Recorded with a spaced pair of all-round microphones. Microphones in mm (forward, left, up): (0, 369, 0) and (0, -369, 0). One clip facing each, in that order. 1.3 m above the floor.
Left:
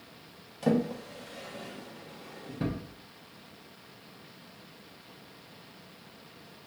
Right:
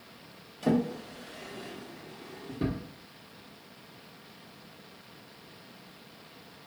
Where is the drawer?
30° left (ahead or behind), 0.7 m.